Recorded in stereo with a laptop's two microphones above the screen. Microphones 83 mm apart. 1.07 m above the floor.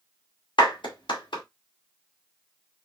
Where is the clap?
75° left (ahead or behind), 1.6 m.